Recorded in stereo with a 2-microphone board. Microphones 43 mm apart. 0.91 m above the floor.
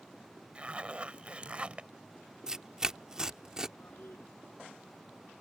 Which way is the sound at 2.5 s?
15° right (ahead or behind).